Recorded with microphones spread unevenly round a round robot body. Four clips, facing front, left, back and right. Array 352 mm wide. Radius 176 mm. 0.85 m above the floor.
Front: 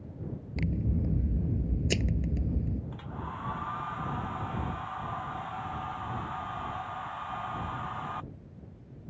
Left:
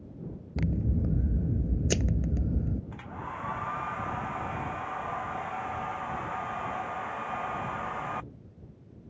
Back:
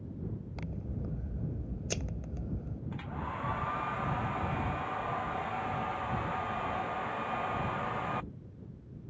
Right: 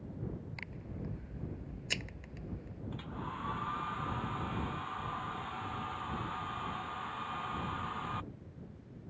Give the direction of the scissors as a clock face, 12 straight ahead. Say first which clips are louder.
Left 14 dB, front 13 dB; 10 o'clock.